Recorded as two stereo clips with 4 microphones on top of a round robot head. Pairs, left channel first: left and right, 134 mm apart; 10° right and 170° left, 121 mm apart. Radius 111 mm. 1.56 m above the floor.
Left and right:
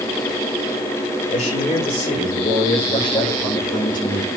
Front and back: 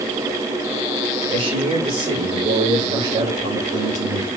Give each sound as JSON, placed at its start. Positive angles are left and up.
{"t": 1.3, "sound": "a man speaking", "azimuth_deg": 135, "distance_m": 6.5}